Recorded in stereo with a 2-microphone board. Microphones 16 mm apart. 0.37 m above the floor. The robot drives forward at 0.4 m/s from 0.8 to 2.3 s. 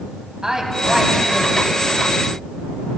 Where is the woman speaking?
30° right (ahead or behind), 3 m; by 1.9 s 35° right (ahead or behind), 2.5 m.